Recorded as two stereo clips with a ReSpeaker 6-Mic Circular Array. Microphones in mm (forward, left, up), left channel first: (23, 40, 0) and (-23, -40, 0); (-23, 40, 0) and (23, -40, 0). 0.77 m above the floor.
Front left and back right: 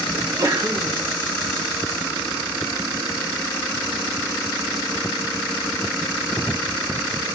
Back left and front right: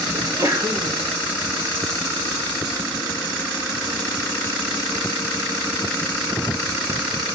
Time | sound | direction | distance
0.1 | a sneeze | 95° right | 1.5 m